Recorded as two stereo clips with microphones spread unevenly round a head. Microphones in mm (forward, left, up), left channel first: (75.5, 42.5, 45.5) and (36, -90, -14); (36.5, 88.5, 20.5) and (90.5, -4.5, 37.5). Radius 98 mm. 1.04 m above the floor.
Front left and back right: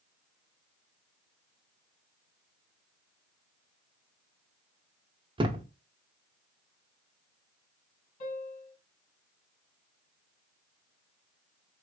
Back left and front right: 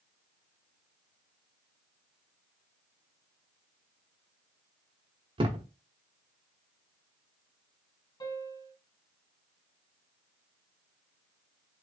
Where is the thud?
40° right, 1.0 m.